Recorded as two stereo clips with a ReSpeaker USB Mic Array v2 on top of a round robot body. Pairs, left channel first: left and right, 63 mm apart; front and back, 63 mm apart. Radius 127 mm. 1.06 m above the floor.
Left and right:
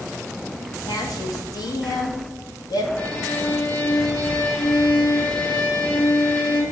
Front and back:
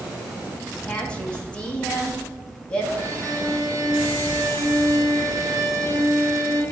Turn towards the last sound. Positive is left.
turn(degrees=155)